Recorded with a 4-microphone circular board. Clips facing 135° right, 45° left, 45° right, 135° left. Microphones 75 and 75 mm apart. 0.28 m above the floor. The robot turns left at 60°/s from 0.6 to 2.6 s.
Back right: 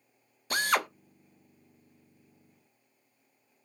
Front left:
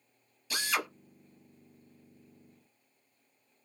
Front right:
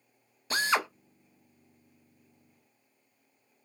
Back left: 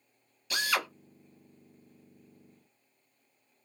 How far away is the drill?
About 0.7 m.